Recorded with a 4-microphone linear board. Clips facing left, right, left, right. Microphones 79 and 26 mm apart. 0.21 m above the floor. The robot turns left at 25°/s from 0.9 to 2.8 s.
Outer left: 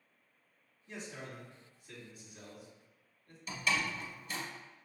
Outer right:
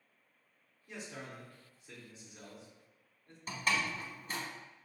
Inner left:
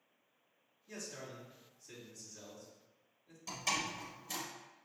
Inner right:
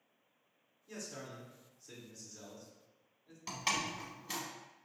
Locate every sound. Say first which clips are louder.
0.9 s a man speaking: even, inner right 1 dB; 15° right, 1.8 m; by 3.4 s 60° right, 1.8 m
3.5 s a door slam: even, inner right 1 dB; 45° right (ahead or behind), 1.0 m